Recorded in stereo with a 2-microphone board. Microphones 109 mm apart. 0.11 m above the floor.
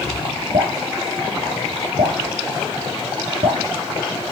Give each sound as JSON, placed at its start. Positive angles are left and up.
{"t": 0.5, "sound": "dripping", "side_deg": -65, "distance_m": 4.0}